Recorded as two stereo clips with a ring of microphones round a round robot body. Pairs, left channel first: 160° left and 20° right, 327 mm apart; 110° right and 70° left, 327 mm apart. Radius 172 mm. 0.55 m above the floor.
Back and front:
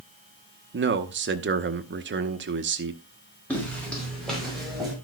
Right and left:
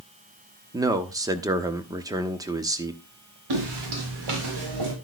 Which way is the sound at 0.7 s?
5° right.